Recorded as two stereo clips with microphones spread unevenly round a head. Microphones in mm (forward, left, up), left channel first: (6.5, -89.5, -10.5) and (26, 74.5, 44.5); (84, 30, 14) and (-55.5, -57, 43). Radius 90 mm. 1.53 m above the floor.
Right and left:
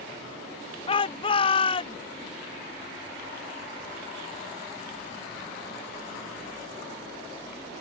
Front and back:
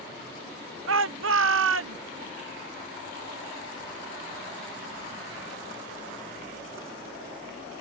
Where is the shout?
155° right.